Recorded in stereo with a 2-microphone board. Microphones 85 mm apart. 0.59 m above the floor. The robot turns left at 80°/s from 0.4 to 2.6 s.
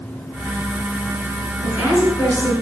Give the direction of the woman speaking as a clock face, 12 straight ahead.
5 o'clock.